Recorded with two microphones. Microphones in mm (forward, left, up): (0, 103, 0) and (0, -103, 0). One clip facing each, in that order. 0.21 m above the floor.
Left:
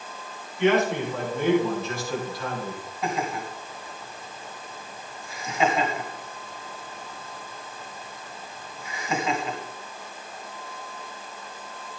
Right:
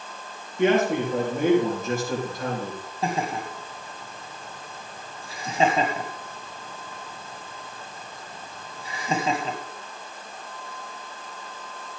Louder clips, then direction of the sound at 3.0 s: Right 1 dB; 35° right (ahead or behind).